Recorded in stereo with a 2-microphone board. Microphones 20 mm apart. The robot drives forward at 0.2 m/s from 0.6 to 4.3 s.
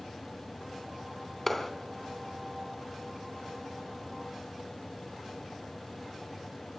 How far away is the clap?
About 3 m.